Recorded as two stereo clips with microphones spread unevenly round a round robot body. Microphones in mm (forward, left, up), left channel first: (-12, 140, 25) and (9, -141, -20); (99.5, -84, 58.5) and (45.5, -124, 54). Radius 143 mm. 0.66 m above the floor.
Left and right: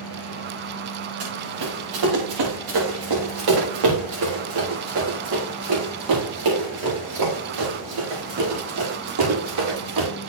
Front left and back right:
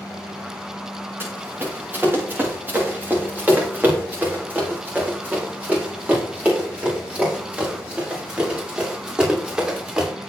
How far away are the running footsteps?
About 6 m.